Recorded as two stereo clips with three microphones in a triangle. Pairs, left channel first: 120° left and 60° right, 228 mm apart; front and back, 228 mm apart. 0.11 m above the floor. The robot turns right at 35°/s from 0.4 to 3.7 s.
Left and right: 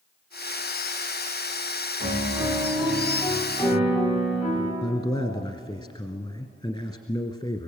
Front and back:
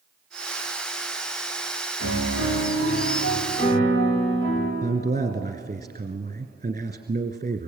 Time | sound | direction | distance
2.0 | a piano | 5° right | 9 m
4.8 | a man speaking | 170° left | 1.7 m